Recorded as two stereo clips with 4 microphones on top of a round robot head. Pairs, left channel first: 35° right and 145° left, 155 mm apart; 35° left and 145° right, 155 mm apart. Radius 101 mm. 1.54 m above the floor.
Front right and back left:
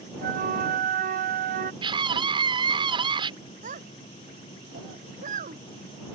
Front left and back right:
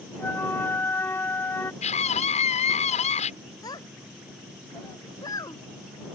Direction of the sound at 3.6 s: 105° left.